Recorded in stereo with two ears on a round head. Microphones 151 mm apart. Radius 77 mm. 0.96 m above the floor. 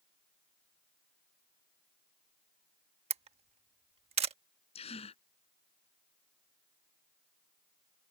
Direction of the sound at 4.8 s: 35° left (ahead or behind).